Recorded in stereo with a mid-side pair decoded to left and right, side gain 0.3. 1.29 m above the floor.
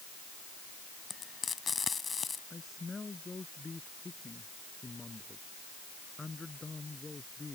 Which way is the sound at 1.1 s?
45° left.